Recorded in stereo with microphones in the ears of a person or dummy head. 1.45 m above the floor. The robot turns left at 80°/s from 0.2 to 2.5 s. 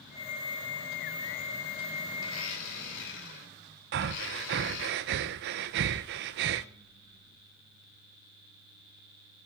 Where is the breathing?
45° right (ahead or behind), 0.6 m.